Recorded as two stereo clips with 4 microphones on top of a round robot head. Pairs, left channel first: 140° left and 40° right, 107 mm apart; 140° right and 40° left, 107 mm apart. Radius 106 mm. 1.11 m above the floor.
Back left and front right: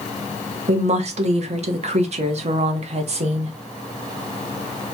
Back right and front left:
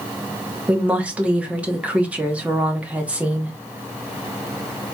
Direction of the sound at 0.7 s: 35° right.